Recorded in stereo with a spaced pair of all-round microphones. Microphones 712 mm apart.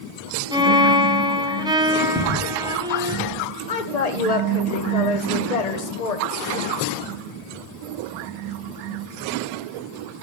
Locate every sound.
0.5 s a violin: 5° right (ahead or behind), 0.7 m
2.1 s footsteps: 5° right (ahead or behind), 2 m; by 3.4 s 25° right (ahead or behind), 1.8 m
3.7 s a woman speaking: 60° left (ahead or behind), 1.0 m